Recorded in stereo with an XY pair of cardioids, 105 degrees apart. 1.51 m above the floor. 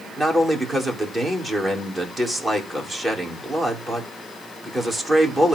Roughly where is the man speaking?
Ahead right.